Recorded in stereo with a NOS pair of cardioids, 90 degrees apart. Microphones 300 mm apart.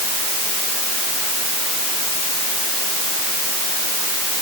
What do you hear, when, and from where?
Only background noise.